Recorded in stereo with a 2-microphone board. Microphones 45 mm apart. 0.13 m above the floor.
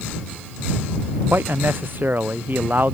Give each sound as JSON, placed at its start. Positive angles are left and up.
{"t": 1.3, "sound": "a man speaking", "side_deg": -50}